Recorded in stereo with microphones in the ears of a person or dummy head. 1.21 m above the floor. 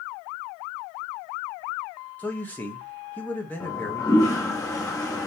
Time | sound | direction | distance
2.2 | a man speaking | 5° left (ahead or behind) | 1.0 m
3.6 | a toilet flushing | 15° left (ahead or behind) | 0.7 m